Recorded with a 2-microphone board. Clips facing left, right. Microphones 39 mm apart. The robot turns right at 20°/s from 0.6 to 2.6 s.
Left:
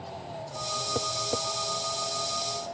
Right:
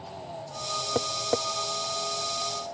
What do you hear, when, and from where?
0.9 s tapping: 25° right (ahead or behind); by 1.4 s 35° right (ahead or behind)